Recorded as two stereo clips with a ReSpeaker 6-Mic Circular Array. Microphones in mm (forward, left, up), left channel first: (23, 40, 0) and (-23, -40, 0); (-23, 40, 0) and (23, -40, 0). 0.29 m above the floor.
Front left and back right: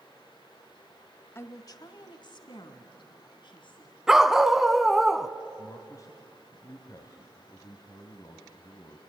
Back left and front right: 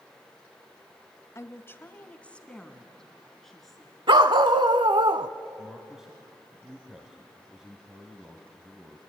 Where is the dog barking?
35° right, 0.7 m.